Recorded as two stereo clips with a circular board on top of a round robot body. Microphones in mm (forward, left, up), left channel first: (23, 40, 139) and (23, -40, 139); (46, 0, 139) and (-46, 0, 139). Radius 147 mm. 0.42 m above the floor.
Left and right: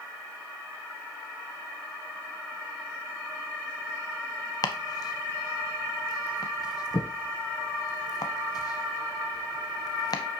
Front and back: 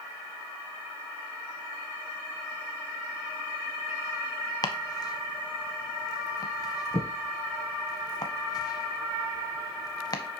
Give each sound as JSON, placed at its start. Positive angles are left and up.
{"t": 4.6, "sound": "chopping", "azimuth_deg": 50, "distance_m": 0.7}